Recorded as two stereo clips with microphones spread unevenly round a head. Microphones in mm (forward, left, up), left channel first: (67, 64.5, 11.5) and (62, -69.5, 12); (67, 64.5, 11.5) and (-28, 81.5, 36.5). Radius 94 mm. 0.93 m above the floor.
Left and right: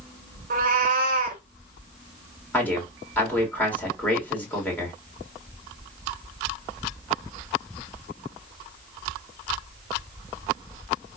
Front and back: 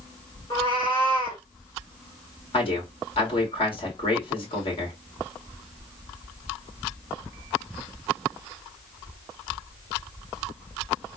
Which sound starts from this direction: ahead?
A man speaking, at 2.5 s.